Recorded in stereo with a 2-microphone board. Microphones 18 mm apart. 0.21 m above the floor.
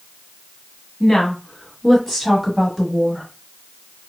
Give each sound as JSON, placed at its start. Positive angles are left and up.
{"t": 1.0, "sound": "a woman speaking", "side_deg": 40, "distance_m": 1.3}